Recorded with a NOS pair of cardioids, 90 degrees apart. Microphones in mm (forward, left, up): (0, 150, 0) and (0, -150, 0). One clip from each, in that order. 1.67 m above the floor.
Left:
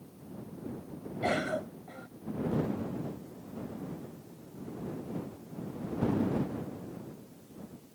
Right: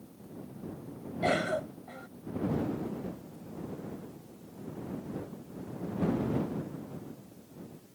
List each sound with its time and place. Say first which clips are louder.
1.2 s a cough: right 2 dB; 20° right